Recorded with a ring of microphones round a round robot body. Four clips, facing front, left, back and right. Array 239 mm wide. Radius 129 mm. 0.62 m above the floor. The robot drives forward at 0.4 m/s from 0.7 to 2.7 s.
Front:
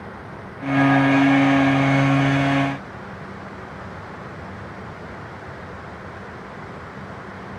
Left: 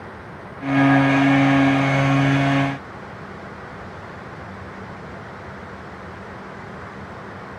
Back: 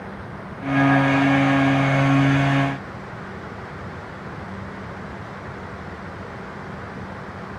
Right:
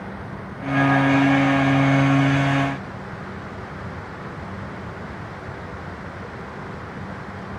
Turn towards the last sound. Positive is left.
No sound to turn to.